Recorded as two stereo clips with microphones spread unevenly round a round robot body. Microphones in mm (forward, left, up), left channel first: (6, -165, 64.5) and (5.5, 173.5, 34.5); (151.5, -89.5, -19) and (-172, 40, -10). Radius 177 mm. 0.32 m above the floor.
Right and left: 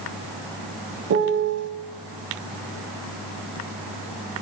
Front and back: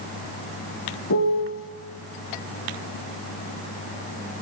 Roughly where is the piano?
Ahead left.